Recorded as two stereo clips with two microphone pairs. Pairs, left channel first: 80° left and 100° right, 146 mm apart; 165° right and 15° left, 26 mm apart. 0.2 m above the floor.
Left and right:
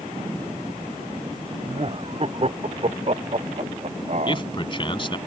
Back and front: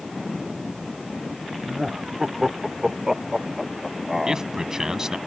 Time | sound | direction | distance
1.6 | laughter | 55° right | ?
4.3 | a man speaking | 70° left | ?